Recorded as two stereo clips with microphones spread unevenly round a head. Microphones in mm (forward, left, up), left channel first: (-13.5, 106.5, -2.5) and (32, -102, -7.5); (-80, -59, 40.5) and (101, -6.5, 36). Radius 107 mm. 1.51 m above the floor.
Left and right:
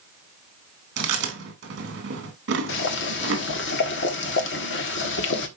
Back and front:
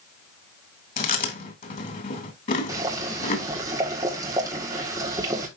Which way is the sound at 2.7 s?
90° left.